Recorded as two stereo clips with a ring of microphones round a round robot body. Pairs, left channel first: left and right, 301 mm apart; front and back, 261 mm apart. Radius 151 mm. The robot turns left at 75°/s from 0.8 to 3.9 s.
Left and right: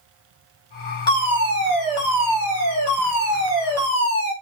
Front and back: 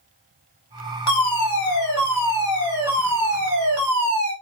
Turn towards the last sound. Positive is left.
turn(degrees=160)